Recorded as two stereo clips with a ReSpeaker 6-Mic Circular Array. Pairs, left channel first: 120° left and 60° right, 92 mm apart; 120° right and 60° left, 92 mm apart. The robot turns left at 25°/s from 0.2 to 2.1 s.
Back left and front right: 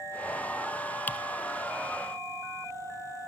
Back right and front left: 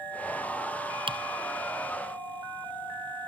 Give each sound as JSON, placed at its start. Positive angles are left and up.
{"t": 1.1, "sound": "typing on a keyboard", "azimuth_deg": 50, "distance_m": 0.9}